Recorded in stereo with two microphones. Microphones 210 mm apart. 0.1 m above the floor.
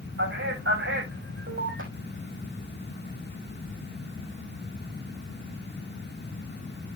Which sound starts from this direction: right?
A man speaking, at 0.2 s.